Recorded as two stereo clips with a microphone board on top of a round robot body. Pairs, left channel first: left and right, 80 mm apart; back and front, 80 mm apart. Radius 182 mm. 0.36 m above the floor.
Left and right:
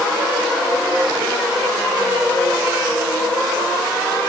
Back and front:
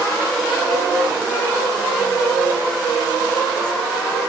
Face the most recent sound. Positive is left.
No sound to turn to.